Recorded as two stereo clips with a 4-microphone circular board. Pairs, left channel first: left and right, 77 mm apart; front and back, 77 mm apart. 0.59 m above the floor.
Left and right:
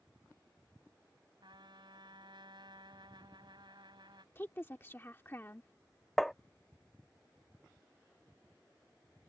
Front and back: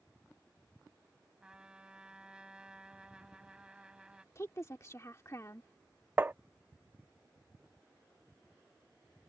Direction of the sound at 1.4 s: 100° right.